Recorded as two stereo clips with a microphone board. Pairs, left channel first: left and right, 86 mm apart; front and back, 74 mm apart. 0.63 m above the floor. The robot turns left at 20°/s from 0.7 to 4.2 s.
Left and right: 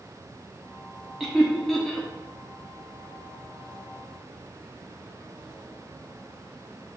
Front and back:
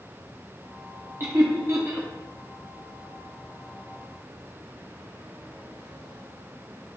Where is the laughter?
175° right, 0.6 m; by 2.1 s 165° left, 0.6 m.